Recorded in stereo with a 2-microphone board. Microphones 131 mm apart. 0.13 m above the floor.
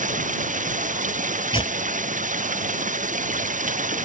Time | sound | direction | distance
0.0 | running water | 65° right (ahead or behind) | ?
1.5 | tearing paper | 40° left (ahead or behind) | ?